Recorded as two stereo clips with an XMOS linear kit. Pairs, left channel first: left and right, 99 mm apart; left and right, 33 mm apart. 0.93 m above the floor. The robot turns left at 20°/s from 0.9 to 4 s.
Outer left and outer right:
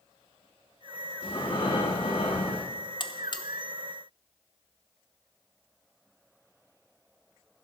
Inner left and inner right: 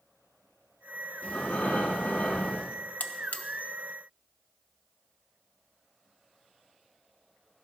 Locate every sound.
1.2 s breathing: 65° left (ahead or behind), 2.5 m
3.0 s a buzzer: 55° left (ahead or behind), 0.8 m; by 3.5 s 50° left (ahead or behind), 0.8 m